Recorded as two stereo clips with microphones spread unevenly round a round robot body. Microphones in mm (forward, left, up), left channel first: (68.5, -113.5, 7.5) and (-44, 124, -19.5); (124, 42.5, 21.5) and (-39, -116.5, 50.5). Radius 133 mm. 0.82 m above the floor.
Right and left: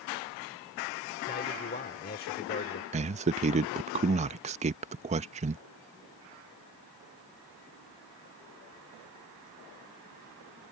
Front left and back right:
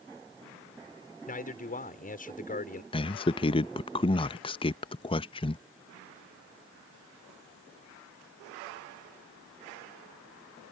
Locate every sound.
1.3 s a man speaking: 5° right
2.9 s a man speaking: 80° left